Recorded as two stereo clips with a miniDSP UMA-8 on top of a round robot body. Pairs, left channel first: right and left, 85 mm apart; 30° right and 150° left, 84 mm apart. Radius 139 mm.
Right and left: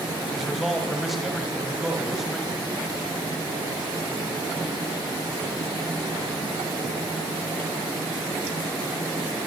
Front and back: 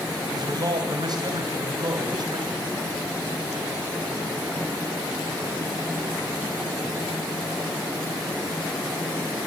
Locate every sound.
0.3 s a man speaking: straight behind, 3 m